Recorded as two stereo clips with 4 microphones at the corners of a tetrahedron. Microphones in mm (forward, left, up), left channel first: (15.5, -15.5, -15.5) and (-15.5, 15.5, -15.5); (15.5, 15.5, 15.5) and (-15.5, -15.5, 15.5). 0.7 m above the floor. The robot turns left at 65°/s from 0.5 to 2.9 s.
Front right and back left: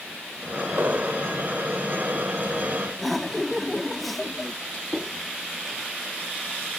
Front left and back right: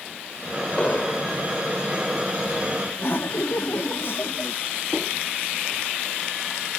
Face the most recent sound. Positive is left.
turn(degrees=40)